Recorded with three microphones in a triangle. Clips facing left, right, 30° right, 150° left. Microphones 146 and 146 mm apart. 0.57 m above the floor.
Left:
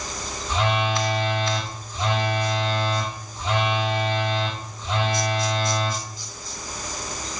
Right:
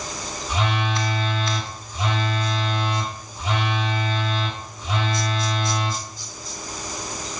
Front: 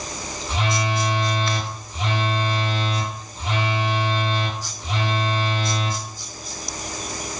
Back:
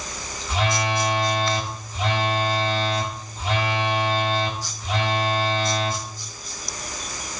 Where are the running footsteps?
No running footsteps in this recording.